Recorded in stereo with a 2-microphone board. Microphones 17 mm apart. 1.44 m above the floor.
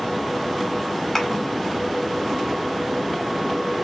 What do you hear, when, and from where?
1.1 s a thud: 15° left (ahead or behind), 2.0 m